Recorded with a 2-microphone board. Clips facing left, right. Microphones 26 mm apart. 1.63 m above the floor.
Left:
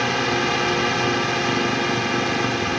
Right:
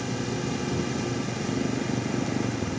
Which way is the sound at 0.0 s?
50° left (ahead or behind).